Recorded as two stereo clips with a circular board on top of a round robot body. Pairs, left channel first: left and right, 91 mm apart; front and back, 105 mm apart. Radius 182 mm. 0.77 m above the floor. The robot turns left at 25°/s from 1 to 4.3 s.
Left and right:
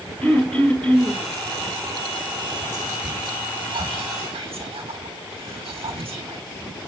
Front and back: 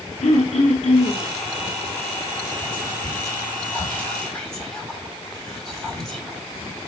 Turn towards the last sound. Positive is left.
turn(degrees=-85)